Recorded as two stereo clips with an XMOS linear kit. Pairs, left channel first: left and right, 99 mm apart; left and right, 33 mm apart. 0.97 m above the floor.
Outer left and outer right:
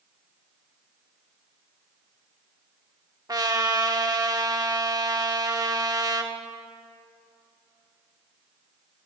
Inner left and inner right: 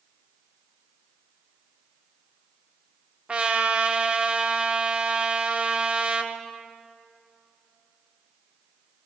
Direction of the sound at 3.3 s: 40° right (ahead or behind).